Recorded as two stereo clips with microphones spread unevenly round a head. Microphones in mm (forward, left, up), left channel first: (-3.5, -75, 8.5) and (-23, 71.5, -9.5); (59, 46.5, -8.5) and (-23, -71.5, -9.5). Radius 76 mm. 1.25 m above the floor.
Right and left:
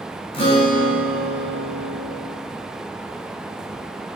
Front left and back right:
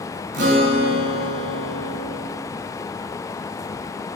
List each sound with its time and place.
0.3 s a guitar: 135° right, 4 m